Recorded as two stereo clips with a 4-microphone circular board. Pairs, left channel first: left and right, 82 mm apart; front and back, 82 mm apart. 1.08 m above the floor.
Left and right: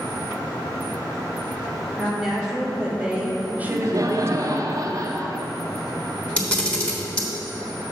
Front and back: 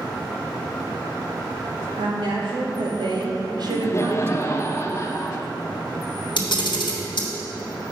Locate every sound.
2.0 s a woman speaking: 175° right, 2.0 m; by 4.6 s 95° right, 0.5 m
3.6 s laughter: 50° right, 0.7 m
6.4 s a camera shutter: 15° left, 1.2 m